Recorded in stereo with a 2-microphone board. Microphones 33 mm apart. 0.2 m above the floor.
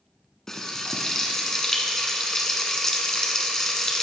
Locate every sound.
0.5 s frying: 15° left (ahead or behind), 1.0 m